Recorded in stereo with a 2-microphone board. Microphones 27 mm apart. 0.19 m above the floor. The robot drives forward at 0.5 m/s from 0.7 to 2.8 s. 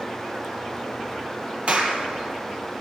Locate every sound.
1.7 s a clap: 50° right (ahead or behind), 3.5 m; by 2.0 s 45° right (ahead or behind), 3.5 m